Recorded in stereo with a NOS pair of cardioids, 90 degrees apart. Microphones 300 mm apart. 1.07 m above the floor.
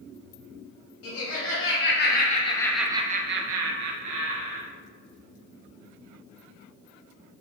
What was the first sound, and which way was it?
Laughter, 50° left.